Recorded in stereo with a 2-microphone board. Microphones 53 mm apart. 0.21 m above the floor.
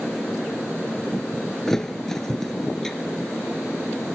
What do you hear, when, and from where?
1.7 s a thud: 10° left (ahead or behind), 1.9 m